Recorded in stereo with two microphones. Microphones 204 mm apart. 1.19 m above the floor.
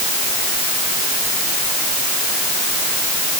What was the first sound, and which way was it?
Only background noise.